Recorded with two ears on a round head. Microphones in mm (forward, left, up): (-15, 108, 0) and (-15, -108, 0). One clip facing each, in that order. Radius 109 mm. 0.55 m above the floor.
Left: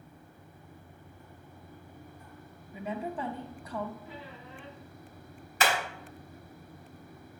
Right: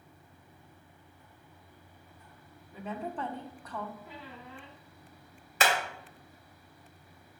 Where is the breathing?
I don't hear breathing.